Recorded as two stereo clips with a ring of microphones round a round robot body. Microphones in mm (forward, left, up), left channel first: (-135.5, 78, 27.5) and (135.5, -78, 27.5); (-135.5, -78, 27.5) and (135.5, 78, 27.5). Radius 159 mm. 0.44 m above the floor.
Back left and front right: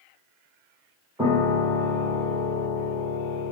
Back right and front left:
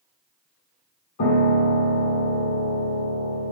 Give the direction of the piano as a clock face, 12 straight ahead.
4 o'clock.